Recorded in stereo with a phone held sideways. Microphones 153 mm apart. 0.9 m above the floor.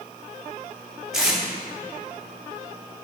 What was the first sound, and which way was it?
Tape being pulled, 5° right (ahead or behind).